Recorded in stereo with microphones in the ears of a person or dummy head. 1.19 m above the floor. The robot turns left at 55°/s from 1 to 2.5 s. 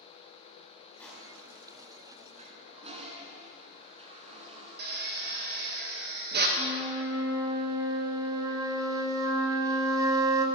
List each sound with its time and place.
1.0 s crushing: 5° left (ahead or behind), 5 m; by 1.7 s 35° right (ahead or behind), 5 m
2.4 s a toilet flushing: 35° right (ahead or behind), 2 m; by 5.8 s 30° right (ahead or behind), 2 m
4.8 s a drill: 50° right (ahead or behind), 1.6 m
6.6 s a flute: 25° right (ahead or behind), 1.5 m